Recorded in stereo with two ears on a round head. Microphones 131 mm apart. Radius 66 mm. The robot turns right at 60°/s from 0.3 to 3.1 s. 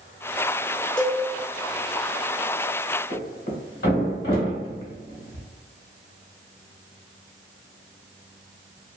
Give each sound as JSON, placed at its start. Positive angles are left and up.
{"t": 1.0, "sound": "a cowbell", "side_deg": 10, "distance_m": 0.8}
{"t": 3.1, "sound": "a thud", "side_deg": 85, "distance_m": 1.5}